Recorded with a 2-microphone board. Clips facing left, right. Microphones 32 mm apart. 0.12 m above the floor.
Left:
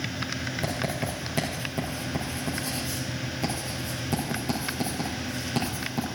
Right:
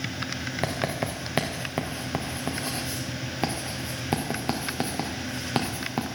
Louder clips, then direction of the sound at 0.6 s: Right 3 dB; 40° right (ahead or behind).